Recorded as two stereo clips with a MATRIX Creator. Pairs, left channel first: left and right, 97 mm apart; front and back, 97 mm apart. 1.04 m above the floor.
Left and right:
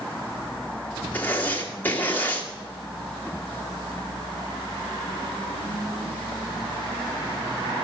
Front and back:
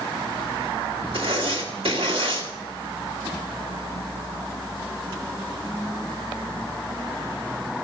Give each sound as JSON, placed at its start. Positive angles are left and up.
{"t": 1.1, "sound": "writing", "azimuth_deg": 160, "distance_m": 2.0}